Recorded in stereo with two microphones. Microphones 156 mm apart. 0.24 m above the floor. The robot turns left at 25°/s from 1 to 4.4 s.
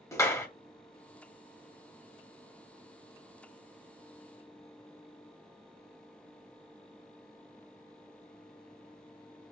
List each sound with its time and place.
0.1 s a clap: 20° left (ahead or behind), 0.7 m